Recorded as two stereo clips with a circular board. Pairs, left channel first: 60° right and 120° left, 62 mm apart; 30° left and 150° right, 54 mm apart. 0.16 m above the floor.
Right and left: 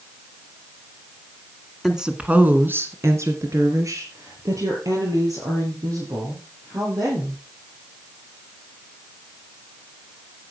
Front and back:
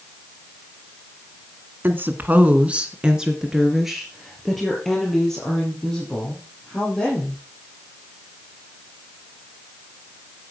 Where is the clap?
No clap in this recording.